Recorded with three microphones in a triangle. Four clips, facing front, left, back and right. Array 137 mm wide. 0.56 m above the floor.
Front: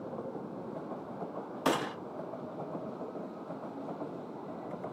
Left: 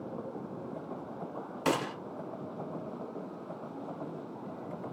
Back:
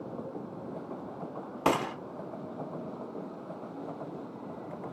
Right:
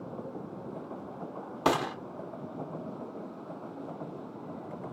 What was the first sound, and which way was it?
A gunshot, 135° right.